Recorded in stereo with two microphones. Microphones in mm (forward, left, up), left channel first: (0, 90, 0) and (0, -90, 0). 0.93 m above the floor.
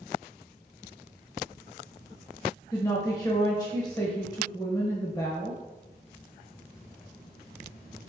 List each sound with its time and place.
2.7 s a woman speaking: 20° left (ahead or behind), 0.9 m